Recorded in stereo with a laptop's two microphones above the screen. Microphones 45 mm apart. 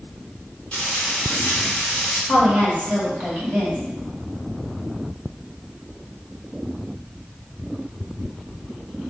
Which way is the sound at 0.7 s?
20° left (ahead or behind).